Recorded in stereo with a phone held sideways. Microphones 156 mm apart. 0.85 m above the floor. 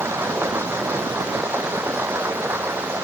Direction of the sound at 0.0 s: 15° right (ahead or behind).